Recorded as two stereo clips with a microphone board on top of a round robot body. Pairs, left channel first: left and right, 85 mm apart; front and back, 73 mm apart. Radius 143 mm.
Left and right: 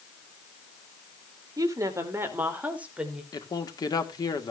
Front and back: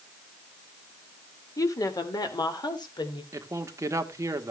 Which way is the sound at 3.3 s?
130° left.